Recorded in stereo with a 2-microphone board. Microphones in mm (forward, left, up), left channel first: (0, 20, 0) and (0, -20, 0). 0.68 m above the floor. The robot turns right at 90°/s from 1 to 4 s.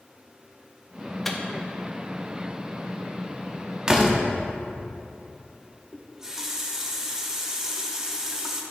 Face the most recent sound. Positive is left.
turn(degrees=-15)  # may be behind; listen again after turning